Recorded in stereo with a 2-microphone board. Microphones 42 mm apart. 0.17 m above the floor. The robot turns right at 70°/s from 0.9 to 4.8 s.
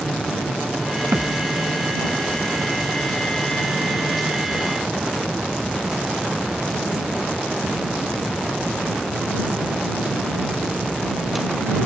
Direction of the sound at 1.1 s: 115° right.